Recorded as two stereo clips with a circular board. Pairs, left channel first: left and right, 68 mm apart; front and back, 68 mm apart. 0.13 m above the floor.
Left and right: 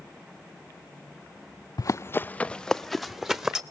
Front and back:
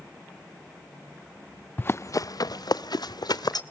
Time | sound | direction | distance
1.8 | running footsteps | 65° left | 0.5 m